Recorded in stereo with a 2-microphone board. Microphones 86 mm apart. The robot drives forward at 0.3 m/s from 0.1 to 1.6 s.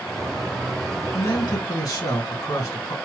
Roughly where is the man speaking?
Left.